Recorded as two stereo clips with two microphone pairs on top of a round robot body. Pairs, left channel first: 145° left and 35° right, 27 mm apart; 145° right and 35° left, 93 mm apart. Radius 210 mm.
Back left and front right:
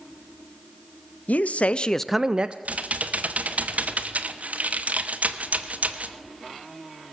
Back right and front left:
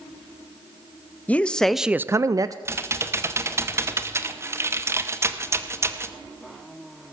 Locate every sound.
1.3 s a man speaking: 140° left, 0.8 m; by 2.5 s straight ahead, 0.7 m
2.6 s typing on a keyboard: 20° right, 1.0 m